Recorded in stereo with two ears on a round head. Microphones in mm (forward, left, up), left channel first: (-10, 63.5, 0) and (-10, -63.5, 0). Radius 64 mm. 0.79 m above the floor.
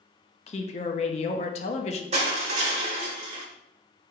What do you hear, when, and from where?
0.5 s a woman speaking: 45° left (ahead or behind), 0.5 m
2.1 s crushing: 50° right (ahead or behind), 0.9 m